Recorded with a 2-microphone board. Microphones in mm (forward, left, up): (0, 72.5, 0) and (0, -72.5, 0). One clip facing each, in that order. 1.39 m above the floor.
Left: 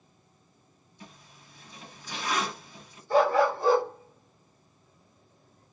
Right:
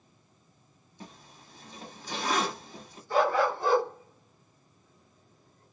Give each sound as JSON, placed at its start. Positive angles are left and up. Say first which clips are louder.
{"t": 1.0, "sound": "a zipper", "louder": "right 3 dB", "side_deg": -40, "distance_m": 1.0}
{"t": 3.1, "sound": "a dog barking", "louder": "left 3 dB", "side_deg": 35, "distance_m": 1.5}